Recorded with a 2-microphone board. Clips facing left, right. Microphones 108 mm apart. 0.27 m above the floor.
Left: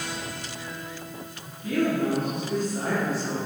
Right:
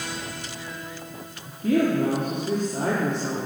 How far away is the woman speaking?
About 4.5 m.